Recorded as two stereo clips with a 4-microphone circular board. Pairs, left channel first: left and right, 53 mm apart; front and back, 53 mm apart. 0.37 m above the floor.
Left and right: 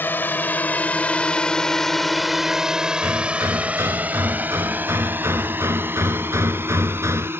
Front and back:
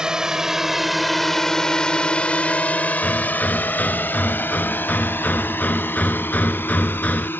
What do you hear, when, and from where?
0.0 s a drone: 110° left; by 7.4 s 50° right
3.0 s hammering: 65° right